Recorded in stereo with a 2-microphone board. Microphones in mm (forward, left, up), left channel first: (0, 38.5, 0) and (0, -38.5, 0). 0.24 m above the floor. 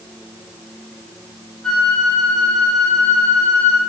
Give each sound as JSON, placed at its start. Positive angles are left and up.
{"t": 1.6, "sound": "a flute", "side_deg": 10, "distance_m": 4.0}